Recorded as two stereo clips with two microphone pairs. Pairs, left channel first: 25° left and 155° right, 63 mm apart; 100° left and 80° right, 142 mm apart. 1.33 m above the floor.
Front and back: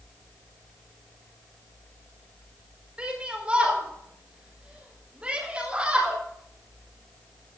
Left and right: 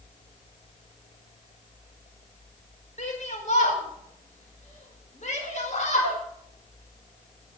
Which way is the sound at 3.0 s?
130° left.